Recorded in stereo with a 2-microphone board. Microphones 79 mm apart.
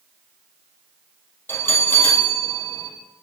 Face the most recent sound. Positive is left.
turn(degrees=25)  # may be behind; listen again after turning